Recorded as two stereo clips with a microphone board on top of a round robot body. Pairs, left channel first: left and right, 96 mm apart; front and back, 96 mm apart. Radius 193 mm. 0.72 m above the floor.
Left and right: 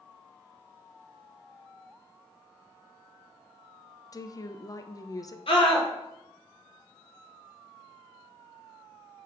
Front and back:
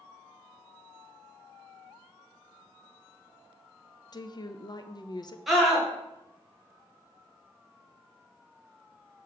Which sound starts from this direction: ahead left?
A woman speaking, at 4.1 s.